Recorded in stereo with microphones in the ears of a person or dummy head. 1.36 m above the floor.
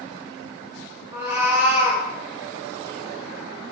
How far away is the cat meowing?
About 1.1 m.